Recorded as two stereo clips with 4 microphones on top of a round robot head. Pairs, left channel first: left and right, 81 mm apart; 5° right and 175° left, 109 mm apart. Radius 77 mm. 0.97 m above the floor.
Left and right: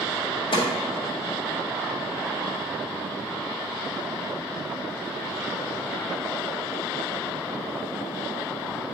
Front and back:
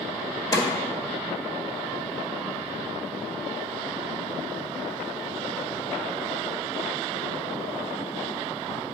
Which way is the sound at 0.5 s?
55° left.